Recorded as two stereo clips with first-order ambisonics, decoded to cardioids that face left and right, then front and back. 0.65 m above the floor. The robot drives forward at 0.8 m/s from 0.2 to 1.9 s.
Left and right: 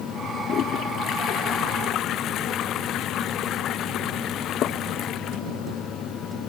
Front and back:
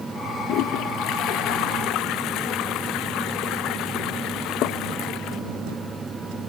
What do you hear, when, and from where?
0.5 s a toilet flushing: 35° left; by 5.4 s 40° left